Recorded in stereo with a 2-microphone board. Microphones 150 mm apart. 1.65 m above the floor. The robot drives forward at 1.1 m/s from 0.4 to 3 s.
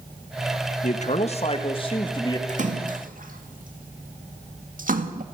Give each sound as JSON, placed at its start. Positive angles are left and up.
{"t": 0.8, "sound": "a man speaking", "side_deg": 55, "distance_m": 1.8}
{"t": 2.5, "sound": "a splash", "side_deg": -55, "distance_m": 2.5}